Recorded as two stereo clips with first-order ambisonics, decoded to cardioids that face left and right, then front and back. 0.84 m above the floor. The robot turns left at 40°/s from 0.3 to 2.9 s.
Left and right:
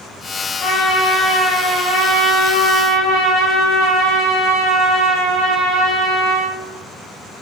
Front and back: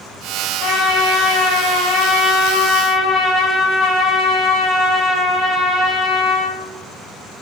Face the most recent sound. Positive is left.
turn(degrees=-60)